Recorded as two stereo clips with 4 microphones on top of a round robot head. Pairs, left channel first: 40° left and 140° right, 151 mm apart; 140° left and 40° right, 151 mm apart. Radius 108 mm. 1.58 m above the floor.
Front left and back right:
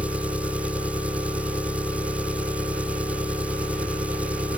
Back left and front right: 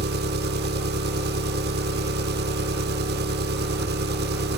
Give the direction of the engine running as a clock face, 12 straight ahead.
2 o'clock.